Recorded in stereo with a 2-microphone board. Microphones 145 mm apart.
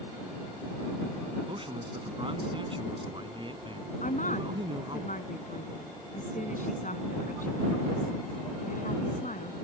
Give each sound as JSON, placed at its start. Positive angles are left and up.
{"t": 1.5, "sound": "a man speaking", "side_deg": -35}
{"t": 4.0, "sound": "a woman speaking", "side_deg": 65}